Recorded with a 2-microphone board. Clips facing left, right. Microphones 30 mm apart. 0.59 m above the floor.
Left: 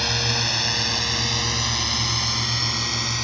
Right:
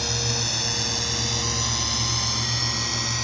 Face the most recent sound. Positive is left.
turn(degrees=15)  # may be behind; listen again after turning